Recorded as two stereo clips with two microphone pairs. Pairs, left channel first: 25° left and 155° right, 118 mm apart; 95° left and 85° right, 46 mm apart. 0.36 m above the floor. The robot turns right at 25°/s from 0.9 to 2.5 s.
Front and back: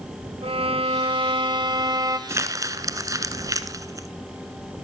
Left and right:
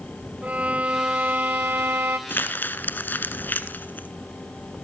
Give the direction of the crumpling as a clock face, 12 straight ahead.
7 o'clock.